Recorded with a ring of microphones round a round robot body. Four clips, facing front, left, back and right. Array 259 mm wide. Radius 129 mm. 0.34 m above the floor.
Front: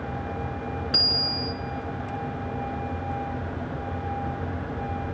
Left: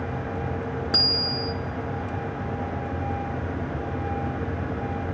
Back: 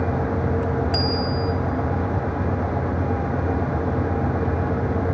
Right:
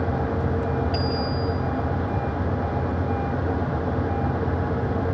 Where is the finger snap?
No finger snap in this recording.